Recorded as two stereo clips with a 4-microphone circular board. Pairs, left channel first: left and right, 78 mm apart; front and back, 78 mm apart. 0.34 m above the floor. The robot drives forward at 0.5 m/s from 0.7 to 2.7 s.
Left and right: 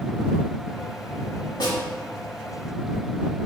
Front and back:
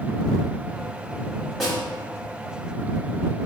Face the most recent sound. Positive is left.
turn(degrees=125)